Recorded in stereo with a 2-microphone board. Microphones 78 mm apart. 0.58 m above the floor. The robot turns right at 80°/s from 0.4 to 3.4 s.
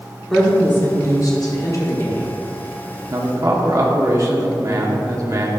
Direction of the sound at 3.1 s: 45° right (ahead or behind).